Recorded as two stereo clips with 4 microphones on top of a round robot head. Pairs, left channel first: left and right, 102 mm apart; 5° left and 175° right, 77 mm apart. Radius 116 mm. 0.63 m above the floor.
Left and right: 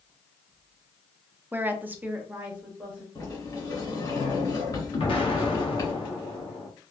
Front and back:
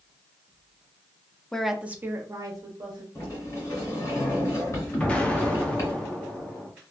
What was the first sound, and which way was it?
A woman speaking, 60° right.